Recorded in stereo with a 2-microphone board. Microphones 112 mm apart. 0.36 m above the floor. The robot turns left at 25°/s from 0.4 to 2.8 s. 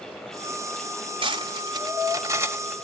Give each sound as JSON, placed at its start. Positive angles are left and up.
{"t": 1.2, "sound": "cutlery clinking", "side_deg": -45, "distance_m": 0.8}